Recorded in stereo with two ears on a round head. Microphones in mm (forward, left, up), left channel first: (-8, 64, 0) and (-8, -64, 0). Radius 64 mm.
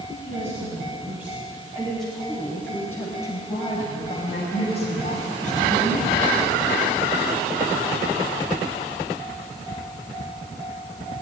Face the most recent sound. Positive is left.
turn(degrees=65)  # may be behind; listen again after turning